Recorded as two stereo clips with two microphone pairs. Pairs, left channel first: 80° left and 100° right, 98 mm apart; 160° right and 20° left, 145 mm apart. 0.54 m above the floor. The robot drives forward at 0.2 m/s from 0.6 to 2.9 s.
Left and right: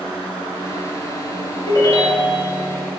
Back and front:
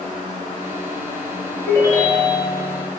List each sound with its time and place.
1.7 s a ringtone: 125° left, 1.9 m; by 2.5 s 130° left, 2 m